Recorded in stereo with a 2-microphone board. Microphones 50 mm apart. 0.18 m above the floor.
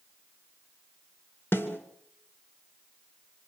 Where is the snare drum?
55° left (ahead or behind), 2.5 m.